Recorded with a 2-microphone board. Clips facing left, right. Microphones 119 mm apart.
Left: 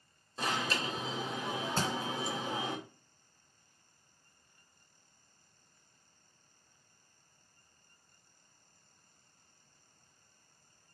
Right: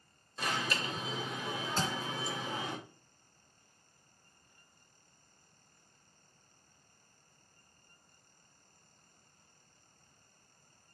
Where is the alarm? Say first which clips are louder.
Left 1 dB; 30° left (ahead or behind), 2.5 m.